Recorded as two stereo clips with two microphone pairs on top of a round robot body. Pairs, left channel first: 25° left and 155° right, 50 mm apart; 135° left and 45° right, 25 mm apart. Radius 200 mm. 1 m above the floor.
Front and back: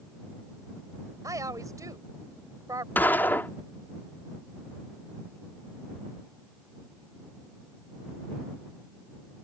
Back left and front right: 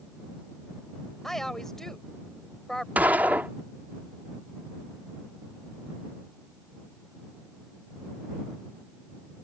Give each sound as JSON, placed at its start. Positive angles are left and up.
{"t": 1.2, "sound": "a woman speaking", "azimuth_deg": -150}
{"t": 3.0, "sound": "a gunshot", "azimuth_deg": -30}